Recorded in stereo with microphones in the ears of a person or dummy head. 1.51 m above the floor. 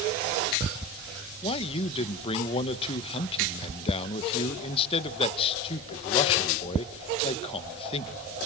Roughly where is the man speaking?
Left.